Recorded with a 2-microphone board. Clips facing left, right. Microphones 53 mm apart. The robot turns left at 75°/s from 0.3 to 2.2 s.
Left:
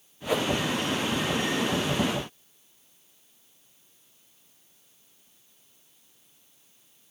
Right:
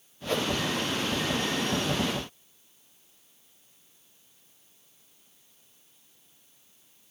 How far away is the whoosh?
About 0.5 m.